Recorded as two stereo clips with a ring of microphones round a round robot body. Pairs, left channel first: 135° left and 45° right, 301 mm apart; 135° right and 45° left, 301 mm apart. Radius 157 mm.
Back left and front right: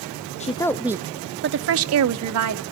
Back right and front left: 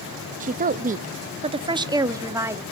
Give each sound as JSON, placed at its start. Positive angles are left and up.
{"t": 0.4, "sound": "a woman speaking", "azimuth_deg": 85, "distance_m": 0.6}